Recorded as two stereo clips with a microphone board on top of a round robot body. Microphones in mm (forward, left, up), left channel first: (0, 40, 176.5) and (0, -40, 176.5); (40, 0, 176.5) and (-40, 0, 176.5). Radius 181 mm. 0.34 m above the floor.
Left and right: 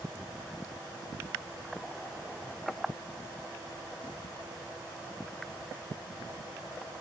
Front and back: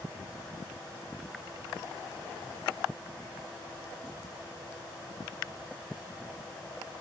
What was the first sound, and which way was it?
Only background noise.